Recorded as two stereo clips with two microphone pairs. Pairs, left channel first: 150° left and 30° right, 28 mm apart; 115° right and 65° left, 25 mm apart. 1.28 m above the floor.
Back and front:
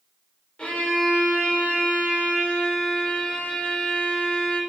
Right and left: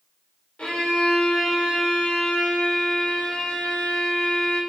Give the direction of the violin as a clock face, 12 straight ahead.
5 o'clock.